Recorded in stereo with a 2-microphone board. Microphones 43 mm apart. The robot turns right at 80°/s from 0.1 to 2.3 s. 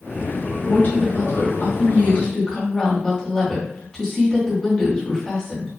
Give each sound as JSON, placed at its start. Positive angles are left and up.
{"t": 0.7, "sound": "a woman speaking", "azimuth_deg": 35, "distance_m": 1.7}